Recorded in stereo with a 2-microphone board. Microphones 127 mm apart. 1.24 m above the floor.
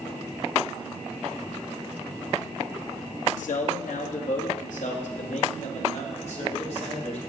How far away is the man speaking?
About 1.8 m.